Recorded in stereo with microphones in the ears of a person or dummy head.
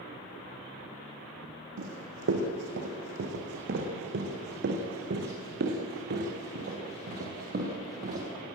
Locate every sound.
1.8 s running footsteps: 70° right (ahead or behind), 5 m; by 8.2 s 50° right (ahead or behind), 8.5 m